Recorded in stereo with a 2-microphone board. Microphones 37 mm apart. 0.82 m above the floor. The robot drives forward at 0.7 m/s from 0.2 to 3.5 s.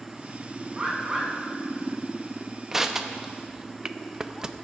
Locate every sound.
0.7 s a bird: 20° right (ahead or behind), 3 m; by 1.3 s 15° right (ahead or behind), 3.5 m
2.7 s crushing: 15° right (ahead or behind), 0.8 m; by 4.5 s 20° right (ahead or behind), 0.5 m